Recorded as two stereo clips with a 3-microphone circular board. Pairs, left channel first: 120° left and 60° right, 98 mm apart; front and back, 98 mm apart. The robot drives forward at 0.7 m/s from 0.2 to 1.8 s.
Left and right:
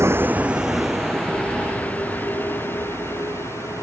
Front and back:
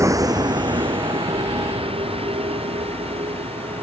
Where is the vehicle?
120° right; by 3.8 s 175° right.